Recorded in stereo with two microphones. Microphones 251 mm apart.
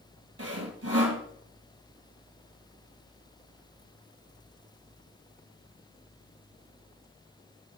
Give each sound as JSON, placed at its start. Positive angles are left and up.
{"t": 0.4, "sound": "sawing", "side_deg": -65, "distance_m": 1.4}